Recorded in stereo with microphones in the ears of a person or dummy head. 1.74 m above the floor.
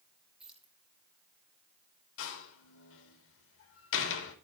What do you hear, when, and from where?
0.4 s keys jangling: 5° right (ahead or behind), 2.5 m
2.2 s a door slam: 75° left (ahead or behind), 3.5 m